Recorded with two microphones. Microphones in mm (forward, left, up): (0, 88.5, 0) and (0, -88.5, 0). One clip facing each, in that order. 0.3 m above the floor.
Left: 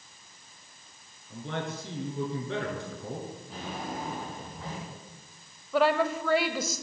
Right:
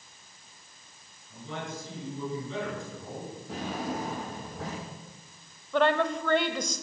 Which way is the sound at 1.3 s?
70° left (ahead or behind).